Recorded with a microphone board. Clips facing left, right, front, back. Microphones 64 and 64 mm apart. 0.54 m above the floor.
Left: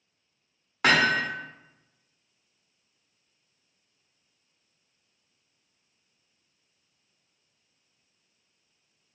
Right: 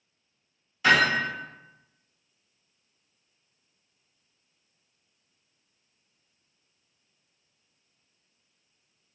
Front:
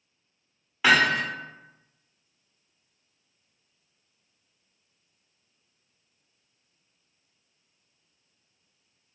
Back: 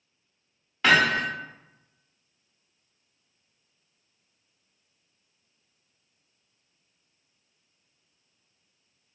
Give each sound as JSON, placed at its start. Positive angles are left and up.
{"t": 0.8, "sound": "hammering", "azimuth_deg": 80, "distance_m": 1.1}